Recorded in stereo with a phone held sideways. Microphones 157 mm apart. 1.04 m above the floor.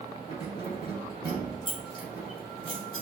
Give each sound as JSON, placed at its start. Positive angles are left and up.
{"t": 0.3, "sound": "keys jangling", "side_deg": 30, "distance_m": 2.0}